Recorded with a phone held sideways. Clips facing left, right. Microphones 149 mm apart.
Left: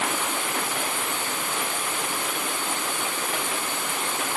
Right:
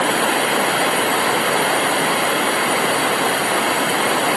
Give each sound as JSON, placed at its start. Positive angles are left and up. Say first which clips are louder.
{"t": 0.0, "sound": "running water", "louder": "right 10 dB", "side_deg": -80}